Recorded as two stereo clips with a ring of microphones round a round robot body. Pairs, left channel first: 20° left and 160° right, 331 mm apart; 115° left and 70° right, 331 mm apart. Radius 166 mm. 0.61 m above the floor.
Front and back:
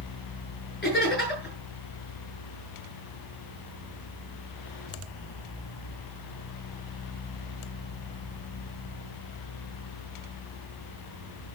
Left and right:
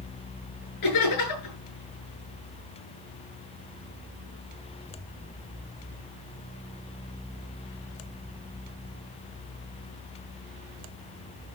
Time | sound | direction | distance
0.8 | laughter | 85° left | 7.5 m